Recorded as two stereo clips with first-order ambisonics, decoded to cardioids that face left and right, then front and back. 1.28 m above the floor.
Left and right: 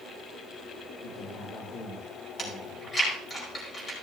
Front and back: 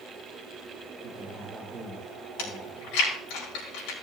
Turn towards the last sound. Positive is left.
turn(degrees=20)